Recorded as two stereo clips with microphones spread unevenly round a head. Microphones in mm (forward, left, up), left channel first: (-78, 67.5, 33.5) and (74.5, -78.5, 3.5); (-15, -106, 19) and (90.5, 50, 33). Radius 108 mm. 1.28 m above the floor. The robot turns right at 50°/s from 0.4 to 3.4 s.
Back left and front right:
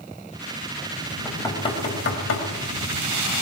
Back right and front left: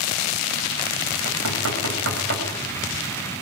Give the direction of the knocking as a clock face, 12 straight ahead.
10 o'clock.